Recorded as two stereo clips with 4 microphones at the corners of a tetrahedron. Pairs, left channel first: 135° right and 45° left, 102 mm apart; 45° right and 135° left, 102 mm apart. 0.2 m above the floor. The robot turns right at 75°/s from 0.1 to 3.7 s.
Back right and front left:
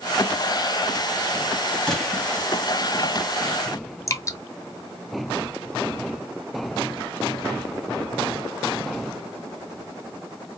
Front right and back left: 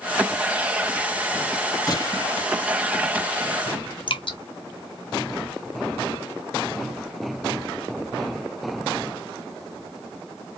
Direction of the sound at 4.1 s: 75° right.